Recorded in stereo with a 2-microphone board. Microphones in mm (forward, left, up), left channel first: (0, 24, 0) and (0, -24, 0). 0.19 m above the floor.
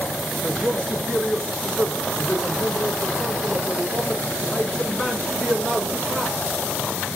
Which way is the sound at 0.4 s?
15° left (ahead or behind).